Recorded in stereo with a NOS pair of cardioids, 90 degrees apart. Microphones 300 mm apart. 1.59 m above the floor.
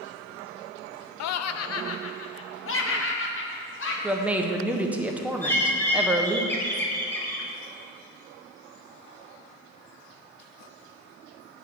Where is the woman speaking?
5° right, 1.3 m.